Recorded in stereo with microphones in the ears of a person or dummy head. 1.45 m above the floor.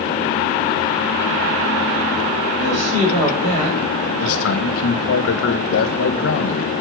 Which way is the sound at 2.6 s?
35° right (ahead or behind).